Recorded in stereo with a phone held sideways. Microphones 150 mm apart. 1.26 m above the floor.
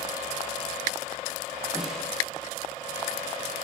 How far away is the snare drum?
About 6.5 m.